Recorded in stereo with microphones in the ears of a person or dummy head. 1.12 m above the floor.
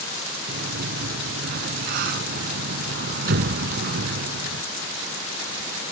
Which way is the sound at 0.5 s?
55° right (ahead or behind).